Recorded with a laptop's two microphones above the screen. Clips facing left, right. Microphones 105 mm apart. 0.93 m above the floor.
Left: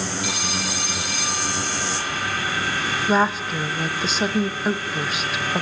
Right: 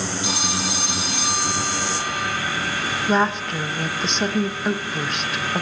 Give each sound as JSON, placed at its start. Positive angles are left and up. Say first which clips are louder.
{"t": 0.2, "sound": "a phone ringing", "louder": "right 2 dB", "side_deg": -25, "distance_m": 5.5}
{"t": 3.1, "sound": "a woman speaking", "louder": "even", "side_deg": 0, "distance_m": 1.2}